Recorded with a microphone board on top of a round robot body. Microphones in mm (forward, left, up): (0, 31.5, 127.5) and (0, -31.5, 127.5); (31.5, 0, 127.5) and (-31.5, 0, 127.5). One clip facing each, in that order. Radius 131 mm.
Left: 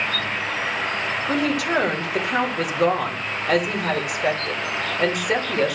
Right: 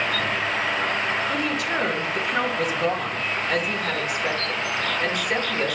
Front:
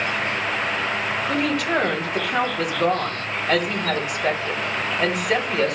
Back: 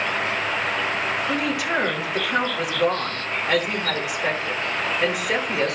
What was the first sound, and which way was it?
A woman speaking, 100° left.